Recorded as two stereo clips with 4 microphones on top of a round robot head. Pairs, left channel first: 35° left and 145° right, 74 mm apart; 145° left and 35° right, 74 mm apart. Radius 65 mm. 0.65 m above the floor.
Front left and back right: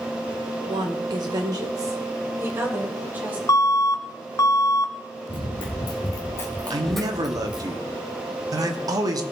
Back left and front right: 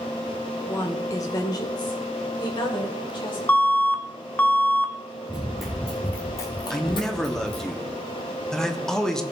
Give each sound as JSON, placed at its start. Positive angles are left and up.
{"t": 0.7, "sound": "a woman speaking", "azimuth_deg": -160, "distance_m": 1.9}
{"t": 3.5, "sound": "an alarm", "azimuth_deg": 80, "distance_m": 1.1}
{"t": 5.3, "sound": "running footsteps", "azimuth_deg": 45, "distance_m": 1.6}
{"t": 6.7, "sound": "a man speaking", "azimuth_deg": -130, "distance_m": 1.3}